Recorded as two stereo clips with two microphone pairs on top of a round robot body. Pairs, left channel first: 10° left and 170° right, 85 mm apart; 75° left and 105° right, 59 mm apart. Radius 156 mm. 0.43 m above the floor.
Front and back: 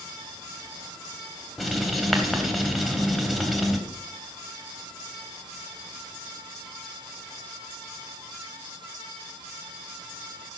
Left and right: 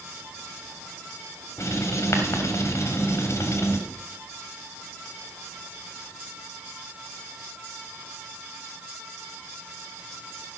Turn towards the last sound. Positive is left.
turn(degrees=110)